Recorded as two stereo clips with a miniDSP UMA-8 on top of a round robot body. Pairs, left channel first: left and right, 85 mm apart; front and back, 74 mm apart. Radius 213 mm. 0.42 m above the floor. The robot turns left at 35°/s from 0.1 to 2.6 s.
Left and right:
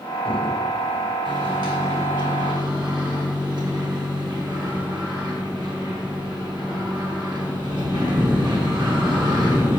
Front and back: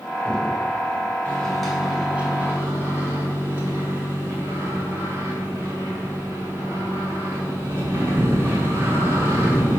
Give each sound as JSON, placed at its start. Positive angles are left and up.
{"t": 1.2, "sound": "a microwave", "azimuth_deg": -75, "distance_m": 2.0}